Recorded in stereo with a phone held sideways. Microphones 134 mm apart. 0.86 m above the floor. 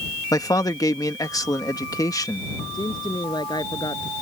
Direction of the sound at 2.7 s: 30° left (ahead or behind).